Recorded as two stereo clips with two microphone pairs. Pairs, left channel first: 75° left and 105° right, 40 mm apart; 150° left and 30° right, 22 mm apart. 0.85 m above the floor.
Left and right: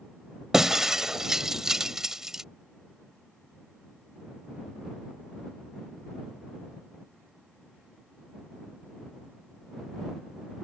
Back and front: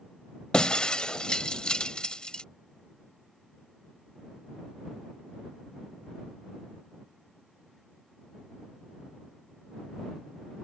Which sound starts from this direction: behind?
Breaking glass, at 0.5 s.